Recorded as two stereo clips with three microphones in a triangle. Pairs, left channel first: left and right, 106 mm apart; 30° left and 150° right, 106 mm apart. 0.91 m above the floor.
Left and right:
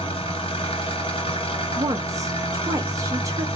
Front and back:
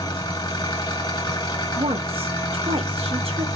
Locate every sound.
0.0 s an engine running: 70° left, 1.7 m
1.8 s a woman speaking: 145° right, 0.9 m